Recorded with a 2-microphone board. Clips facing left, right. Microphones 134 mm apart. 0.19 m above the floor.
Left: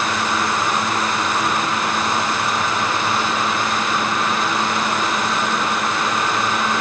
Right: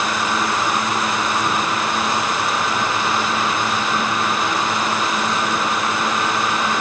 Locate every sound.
Only background noise.